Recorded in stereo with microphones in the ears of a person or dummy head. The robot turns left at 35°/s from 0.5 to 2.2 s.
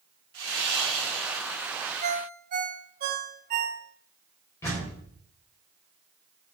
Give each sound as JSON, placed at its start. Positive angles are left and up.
{"t": 0.3, "sound": "sawing", "azimuth_deg": -125, "distance_m": 4.5}
{"t": 2.0, "sound": "a ringtone", "side_deg": -50, "distance_m": 2.5}
{"t": 4.6, "sound": "a door slam", "side_deg": 20, "distance_m": 7.0}